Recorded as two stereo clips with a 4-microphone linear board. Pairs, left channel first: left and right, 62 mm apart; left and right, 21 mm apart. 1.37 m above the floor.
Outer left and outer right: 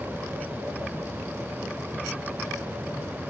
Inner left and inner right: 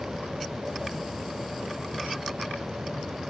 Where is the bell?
I don't hear a bell.